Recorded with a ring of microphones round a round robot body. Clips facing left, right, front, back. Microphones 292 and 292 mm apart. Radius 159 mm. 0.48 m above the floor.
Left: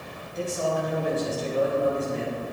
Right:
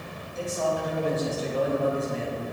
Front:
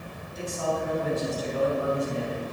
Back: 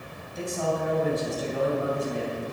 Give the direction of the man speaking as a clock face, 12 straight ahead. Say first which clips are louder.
Left 1 dB, back 1 dB; 6 o'clock.